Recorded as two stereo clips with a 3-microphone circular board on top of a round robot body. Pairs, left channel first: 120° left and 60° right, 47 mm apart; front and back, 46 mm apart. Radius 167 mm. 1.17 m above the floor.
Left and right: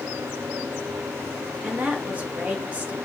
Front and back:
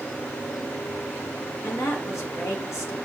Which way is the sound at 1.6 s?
5° left.